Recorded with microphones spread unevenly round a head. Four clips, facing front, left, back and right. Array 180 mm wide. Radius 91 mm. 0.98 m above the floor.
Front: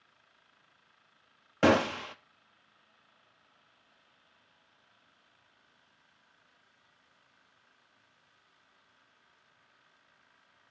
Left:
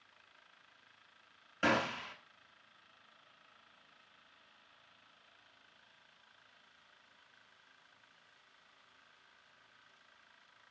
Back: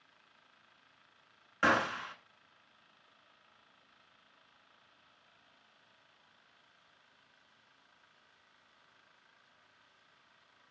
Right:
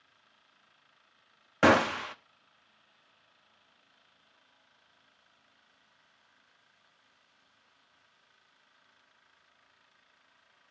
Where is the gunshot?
40° right, 0.8 m.